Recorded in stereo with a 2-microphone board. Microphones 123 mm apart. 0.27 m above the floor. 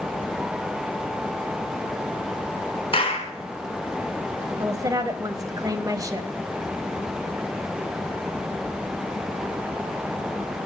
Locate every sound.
2.9 s a clap: 45° left (ahead or behind), 2 m
4.6 s a woman speaking: 30° right (ahead or behind), 1.1 m